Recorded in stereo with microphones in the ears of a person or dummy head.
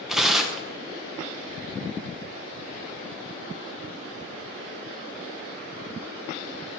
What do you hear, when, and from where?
0.1 s tearing paper: centre (ahead or behind), 1.0 m